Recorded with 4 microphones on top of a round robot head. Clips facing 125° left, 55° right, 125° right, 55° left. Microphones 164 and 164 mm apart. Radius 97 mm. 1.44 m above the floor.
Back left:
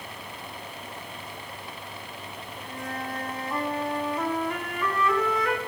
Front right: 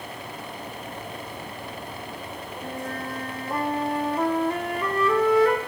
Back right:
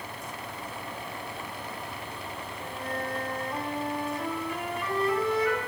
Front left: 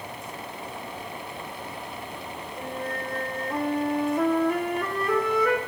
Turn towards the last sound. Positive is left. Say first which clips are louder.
# front right 2 dB, front left 3 dB
turn(degrees=5)